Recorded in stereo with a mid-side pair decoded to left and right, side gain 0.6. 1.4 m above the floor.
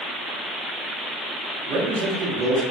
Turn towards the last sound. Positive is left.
turn(degrees=-65)